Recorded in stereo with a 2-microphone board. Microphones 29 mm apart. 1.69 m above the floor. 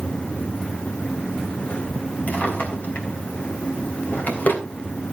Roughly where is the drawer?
Left.